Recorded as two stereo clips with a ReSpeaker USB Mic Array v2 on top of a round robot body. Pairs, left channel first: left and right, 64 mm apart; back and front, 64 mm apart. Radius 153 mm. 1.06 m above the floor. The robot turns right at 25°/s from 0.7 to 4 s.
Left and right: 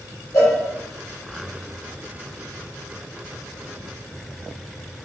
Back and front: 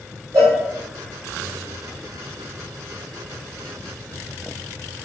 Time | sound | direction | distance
0.3 | a cowbell | 40° left | 2 m